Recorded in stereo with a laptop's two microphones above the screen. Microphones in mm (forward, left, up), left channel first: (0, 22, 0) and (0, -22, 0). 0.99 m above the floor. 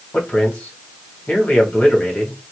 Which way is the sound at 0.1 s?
30° left (ahead or behind).